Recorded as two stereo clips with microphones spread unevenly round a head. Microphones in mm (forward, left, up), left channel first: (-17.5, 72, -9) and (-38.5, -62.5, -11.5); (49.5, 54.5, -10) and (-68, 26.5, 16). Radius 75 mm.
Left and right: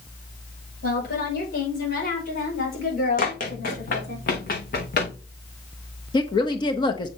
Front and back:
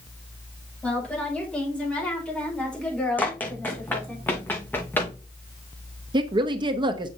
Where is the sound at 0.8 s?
95° left, 6 m.